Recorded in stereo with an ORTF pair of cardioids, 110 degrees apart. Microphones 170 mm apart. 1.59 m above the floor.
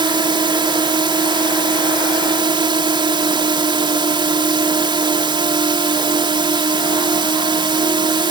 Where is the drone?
25° right.